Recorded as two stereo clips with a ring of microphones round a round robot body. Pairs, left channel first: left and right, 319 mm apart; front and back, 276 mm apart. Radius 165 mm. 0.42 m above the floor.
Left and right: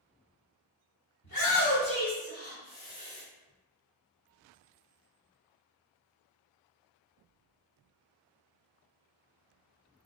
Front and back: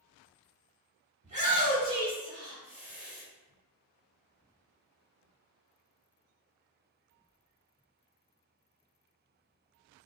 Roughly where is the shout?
Behind left.